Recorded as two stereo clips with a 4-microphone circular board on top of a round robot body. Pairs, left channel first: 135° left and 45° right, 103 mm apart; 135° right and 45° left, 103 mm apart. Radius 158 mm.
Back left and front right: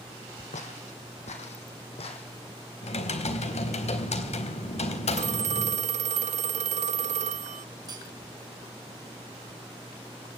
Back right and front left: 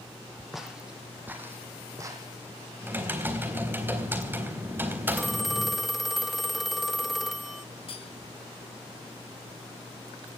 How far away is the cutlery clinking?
About 4.5 m.